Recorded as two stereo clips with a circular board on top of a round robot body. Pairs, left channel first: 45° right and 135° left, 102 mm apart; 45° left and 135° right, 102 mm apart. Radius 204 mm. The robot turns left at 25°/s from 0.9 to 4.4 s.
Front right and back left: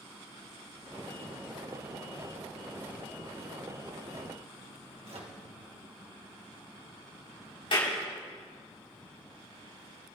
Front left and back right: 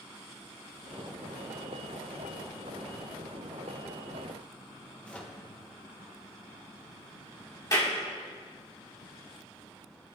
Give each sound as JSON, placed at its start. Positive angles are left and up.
{"t": 5.0, "sound": "a microwave", "azimuth_deg": 125, "distance_m": 2.0}
{"t": 7.7, "sound": "a clap", "azimuth_deg": -10, "distance_m": 5.5}